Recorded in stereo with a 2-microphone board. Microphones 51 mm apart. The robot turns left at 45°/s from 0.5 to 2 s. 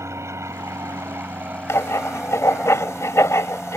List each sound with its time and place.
0.0 s an aircraft: 90° right; by 3.8 s 155° right
1.7 s writing: 65° left (ahead or behind); by 3.8 s 80° left